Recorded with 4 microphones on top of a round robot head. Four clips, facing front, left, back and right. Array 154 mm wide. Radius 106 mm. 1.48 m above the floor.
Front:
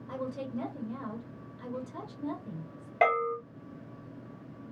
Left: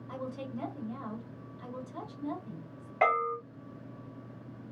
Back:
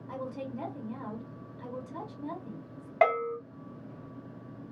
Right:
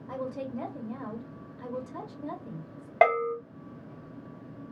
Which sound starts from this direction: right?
A bell, at 3.0 s.